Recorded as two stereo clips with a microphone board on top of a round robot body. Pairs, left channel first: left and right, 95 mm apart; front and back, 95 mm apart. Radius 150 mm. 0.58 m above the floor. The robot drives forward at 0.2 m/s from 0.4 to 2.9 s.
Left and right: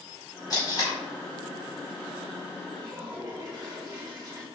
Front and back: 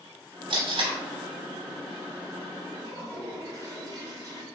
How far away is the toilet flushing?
About 1.9 m.